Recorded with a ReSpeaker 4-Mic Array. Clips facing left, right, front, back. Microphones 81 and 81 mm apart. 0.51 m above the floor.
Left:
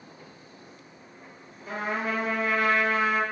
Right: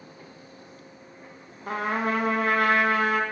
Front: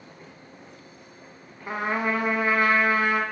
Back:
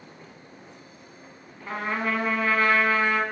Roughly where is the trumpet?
Right.